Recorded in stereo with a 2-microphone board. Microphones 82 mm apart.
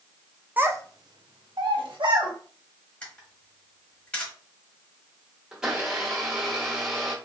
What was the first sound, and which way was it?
A child speaking, 20° right (ahead or behind).